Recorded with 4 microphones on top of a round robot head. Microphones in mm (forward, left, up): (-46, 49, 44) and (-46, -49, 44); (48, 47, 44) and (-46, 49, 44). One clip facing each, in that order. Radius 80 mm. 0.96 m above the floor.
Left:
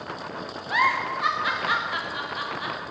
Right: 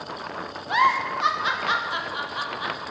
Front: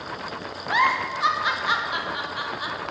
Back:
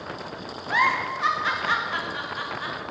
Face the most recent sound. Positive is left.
turn(degrees=-60)